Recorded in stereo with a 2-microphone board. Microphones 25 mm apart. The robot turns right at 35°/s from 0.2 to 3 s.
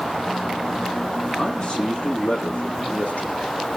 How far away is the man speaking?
About 7.5 m.